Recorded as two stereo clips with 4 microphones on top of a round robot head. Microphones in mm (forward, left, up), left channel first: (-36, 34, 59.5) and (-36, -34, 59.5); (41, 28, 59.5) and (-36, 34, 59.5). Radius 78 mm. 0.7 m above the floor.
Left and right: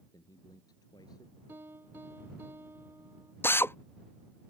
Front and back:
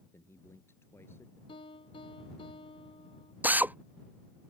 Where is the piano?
25° right.